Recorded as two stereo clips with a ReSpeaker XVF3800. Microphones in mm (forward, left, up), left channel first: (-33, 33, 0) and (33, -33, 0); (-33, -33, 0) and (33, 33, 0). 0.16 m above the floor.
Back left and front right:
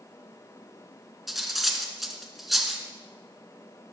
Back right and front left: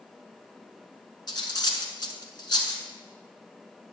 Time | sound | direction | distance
1.3 | cutlery clinking | 135° right | 1.1 m